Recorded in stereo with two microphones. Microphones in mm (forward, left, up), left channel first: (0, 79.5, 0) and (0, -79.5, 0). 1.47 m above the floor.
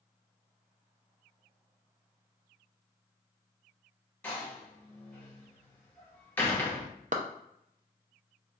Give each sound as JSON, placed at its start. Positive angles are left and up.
{"t": 4.2, "sound": "a door slam", "side_deg": 10, "distance_m": 0.9}
{"t": 7.1, "sound": "a clap", "side_deg": -50, "distance_m": 0.5}